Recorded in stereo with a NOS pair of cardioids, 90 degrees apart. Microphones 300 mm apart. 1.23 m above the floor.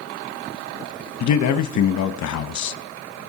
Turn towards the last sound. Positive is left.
turn(degrees=65)